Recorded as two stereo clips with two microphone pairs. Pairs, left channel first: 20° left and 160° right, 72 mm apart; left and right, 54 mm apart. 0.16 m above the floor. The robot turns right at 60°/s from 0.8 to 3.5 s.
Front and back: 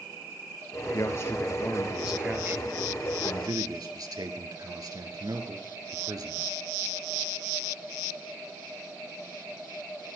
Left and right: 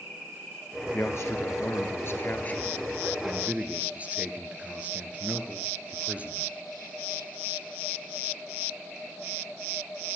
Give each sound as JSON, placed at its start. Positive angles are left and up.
{"t": 0.9, "sound": "a man speaking", "azimuth_deg": 50, "distance_m": 2.5}